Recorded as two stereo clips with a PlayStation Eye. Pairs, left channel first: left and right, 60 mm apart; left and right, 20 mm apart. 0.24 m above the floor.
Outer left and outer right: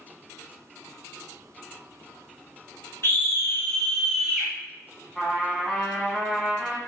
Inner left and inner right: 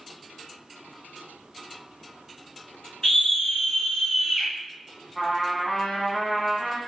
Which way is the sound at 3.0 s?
45° left (ahead or behind).